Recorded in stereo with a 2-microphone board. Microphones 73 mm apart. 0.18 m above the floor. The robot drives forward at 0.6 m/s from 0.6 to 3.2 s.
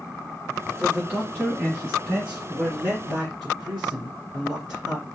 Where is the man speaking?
10° right (ahead or behind), 1.6 m; by 5.1 s 5° right (ahead or behind), 2.5 m.